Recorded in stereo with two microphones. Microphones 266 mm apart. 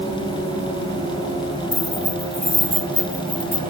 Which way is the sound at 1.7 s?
40° left (ahead or behind).